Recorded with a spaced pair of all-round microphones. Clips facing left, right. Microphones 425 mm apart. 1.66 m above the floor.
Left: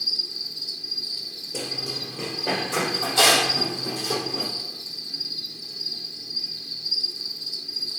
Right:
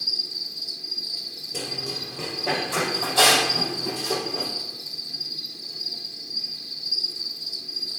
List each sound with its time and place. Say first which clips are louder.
0.0 s an insect: even; 25° left (ahead or behind), 1.0 m
1.5 s running footsteps: even; 10° right (ahead or behind), 2.5 m; by 4.5 s centre (ahead or behind), 5.5 m